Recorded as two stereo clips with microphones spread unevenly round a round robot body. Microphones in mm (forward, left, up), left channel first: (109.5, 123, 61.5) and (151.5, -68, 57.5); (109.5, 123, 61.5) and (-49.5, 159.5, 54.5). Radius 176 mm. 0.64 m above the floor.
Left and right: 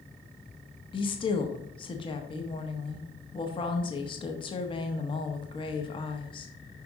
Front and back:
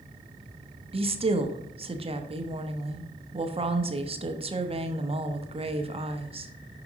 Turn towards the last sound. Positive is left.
turn(degrees=155)